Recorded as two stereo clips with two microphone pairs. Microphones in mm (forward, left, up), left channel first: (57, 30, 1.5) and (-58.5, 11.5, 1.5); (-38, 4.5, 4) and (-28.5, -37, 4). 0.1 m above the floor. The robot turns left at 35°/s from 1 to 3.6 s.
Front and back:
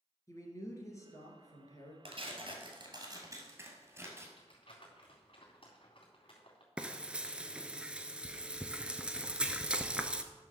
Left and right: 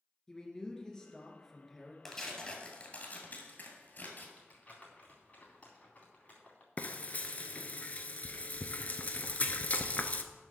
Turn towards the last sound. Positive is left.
turn(degrees=115)